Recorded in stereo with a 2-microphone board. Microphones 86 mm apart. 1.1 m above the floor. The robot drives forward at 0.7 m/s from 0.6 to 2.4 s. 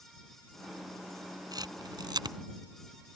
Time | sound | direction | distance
1.5 | a camera shutter | 50° right (ahead or behind) | ?